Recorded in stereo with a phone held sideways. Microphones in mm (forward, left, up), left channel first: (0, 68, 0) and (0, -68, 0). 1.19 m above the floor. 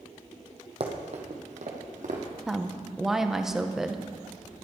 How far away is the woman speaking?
About 0.8 m.